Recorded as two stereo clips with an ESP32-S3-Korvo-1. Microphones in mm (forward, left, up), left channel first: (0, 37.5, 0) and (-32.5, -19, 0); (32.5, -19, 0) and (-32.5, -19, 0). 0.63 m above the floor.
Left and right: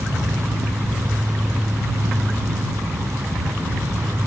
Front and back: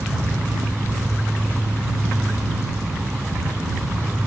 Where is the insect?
115° right.